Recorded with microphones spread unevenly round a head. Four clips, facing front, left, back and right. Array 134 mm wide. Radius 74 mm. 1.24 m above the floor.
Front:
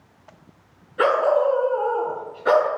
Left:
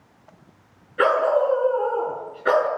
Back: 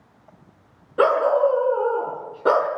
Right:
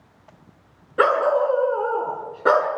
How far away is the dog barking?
About 4.5 m.